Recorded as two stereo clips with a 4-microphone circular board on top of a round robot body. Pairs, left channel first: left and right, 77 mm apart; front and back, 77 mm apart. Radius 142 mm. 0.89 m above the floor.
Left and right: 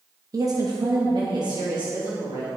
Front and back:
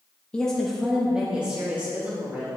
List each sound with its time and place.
0.3 s a woman speaking: 70° right, 1.3 m; by 2.5 s 110° right, 3.5 m